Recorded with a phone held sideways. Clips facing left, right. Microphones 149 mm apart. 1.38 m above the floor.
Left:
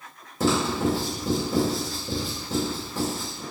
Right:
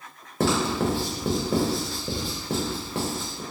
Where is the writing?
70° right (ahead or behind), 0.8 m.